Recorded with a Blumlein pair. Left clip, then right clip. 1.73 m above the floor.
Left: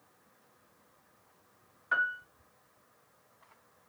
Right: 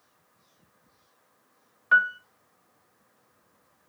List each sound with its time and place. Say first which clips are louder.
1.9 s a piano: right 9 dB; 65° right, 0.7 m